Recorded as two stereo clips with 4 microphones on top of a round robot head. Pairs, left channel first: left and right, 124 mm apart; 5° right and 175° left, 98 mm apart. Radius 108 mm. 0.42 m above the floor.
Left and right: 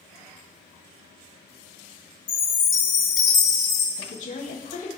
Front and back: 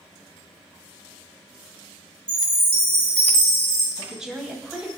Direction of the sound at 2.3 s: 105° left.